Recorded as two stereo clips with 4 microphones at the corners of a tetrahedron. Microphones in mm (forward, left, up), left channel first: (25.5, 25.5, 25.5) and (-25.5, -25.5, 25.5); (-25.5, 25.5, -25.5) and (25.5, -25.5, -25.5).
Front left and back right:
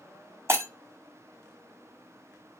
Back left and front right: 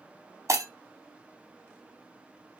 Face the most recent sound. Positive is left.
turn(degrees=-85)